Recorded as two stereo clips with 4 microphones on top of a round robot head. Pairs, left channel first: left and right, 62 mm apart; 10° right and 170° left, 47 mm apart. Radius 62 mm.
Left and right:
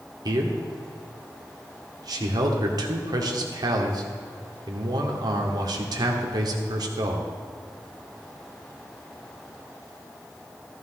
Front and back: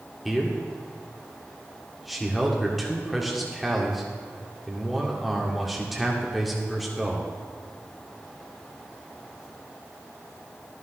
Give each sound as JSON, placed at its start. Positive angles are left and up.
{"t": 0.2, "sound": "a man speaking", "azimuth_deg": -100, "distance_m": 1.9}